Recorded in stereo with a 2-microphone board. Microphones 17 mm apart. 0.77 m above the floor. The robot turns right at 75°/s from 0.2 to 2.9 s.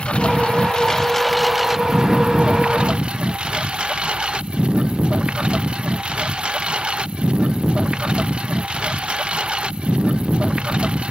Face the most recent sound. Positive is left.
turn(degrees=-75)  # may be behind; listen again after turning